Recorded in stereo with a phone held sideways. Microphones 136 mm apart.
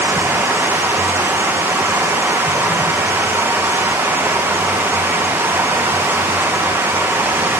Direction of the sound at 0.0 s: 15° right (ahead or behind).